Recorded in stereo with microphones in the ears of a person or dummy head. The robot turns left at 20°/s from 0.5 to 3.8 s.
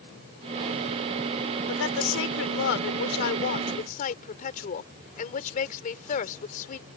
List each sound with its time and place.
1.7 s a woman speaking: 85° left; by 6.9 s 45° left